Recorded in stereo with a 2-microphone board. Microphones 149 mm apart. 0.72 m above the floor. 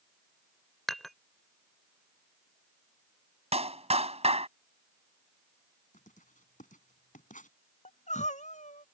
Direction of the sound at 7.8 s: 55° left (ahead or behind).